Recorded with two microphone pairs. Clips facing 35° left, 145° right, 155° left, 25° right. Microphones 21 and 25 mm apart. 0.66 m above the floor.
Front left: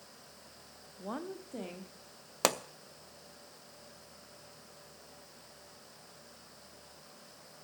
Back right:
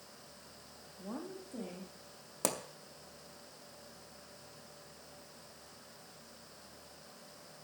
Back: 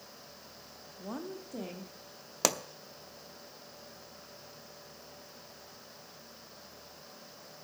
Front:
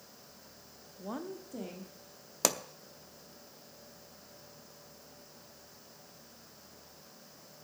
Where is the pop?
75° left, 0.6 m.